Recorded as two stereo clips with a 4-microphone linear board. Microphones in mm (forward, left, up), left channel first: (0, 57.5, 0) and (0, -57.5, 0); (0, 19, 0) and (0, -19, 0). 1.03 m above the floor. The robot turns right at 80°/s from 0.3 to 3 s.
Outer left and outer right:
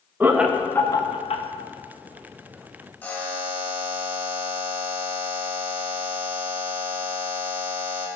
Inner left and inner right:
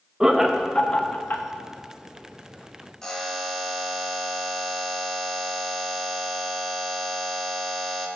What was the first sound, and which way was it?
Laughter, 15° right (ahead or behind).